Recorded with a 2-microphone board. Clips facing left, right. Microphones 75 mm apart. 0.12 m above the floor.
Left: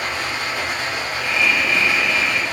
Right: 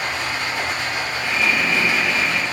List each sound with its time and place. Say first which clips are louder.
0.0 s running water: even; 60° left (ahead or behind), 1.0 m
1.2 s breathing: left 1 dB; 45° right (ahead or behind), 0.6 m